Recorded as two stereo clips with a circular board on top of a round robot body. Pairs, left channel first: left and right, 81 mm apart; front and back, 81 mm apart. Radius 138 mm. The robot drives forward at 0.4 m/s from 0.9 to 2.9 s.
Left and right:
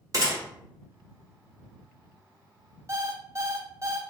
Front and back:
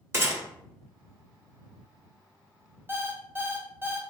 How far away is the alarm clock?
About 0.9 m.